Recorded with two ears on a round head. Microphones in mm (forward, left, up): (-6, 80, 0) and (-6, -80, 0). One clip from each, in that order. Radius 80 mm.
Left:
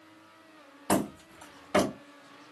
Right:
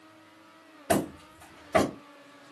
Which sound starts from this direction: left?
Hammering, at 0.9 s.